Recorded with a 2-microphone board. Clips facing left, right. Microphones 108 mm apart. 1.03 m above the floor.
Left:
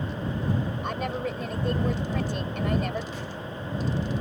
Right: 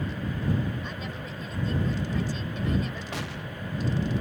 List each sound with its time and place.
0.8 s a woman speaking: 60° left (ahead or behind)
3.1 s an explosion: 75° right (ahead or behind)